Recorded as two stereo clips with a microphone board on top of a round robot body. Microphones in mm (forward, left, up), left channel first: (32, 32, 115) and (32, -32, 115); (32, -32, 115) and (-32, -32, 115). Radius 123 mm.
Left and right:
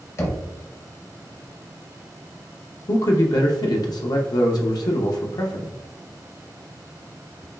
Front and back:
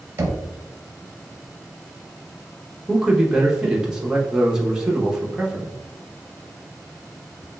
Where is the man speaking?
100° left, 0.7 m.